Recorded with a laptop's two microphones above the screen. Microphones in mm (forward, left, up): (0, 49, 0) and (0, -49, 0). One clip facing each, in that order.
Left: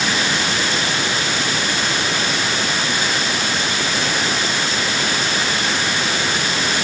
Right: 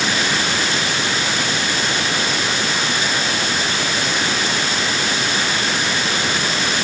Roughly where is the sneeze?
No sneeze in this recording.